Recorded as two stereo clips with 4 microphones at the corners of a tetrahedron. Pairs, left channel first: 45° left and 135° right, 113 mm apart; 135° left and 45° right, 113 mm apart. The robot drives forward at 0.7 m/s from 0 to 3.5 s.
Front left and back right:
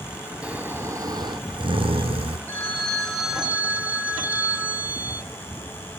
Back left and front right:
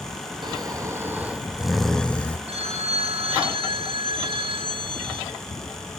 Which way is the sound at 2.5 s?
30° right.